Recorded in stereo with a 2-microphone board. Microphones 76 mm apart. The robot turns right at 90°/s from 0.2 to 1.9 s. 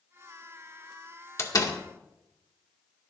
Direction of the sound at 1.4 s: 40° left (ahead or behind).